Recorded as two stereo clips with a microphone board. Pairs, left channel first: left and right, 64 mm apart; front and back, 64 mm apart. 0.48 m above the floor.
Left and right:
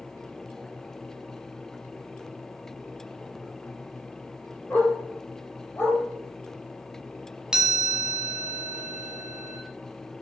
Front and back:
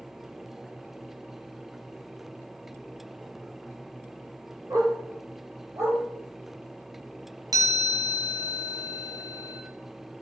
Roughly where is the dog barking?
Behind left.